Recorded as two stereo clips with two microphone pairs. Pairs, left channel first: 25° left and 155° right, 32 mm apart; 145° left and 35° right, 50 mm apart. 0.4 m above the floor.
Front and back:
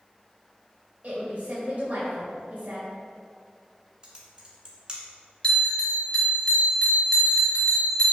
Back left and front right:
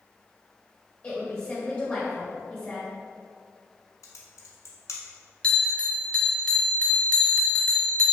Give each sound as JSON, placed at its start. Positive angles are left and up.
{"t": 1.0, "sound": "a woman speaking", "azimuth_deg": -165, "distance_m": 2.0}
{"t": 4.0, "sound": "typing on a keyboard", "azimuth_deg": 135, "distance_m": 1.0}
{"t": 5.4, "sound": "a bell", "azimuth_deg": 75, "distance_m": 0.8}